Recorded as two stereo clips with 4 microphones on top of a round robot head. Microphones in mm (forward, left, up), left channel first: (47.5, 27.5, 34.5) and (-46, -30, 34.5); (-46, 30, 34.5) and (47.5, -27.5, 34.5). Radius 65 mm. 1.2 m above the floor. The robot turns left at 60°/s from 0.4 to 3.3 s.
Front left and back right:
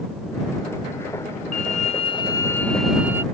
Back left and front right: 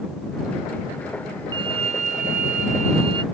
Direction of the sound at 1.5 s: 20° left.